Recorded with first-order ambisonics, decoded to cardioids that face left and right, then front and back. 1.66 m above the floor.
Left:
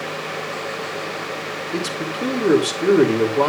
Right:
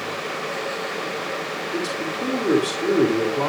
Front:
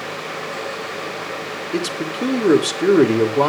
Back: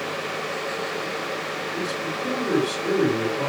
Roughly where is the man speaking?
Ahead.